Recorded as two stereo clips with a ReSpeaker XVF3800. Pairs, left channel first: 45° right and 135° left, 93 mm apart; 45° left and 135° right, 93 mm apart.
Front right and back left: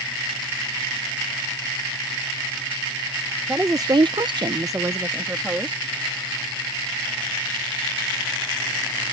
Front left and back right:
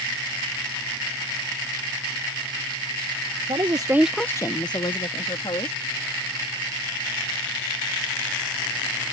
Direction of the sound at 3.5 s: 160° right.